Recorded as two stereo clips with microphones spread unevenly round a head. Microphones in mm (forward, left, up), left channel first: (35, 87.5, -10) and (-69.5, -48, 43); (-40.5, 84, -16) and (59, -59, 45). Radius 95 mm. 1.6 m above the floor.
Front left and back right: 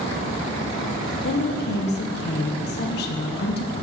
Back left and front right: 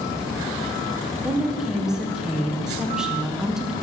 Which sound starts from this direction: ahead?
A woman speaking, at 1.2 s.